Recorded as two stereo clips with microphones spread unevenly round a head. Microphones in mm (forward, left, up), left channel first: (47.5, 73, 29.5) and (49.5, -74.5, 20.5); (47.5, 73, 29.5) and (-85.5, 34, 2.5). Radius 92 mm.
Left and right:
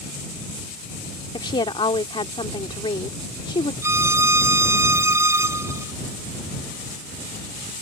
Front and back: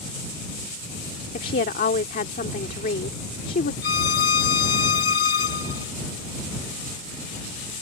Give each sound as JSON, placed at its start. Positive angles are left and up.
{"t": 1.3, "sound": "a woman speaking", "azimuth_deg": 35}
{"t": 3.8, "sound": "a violin", "azimuth_deg": -20}